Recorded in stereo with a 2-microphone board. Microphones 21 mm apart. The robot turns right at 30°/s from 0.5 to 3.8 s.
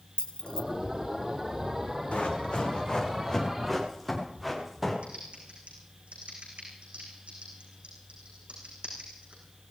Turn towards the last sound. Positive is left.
turn(degrees=-80)